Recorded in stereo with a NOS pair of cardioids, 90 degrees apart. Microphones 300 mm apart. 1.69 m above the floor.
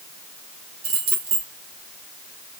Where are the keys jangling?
45° right, 2 m.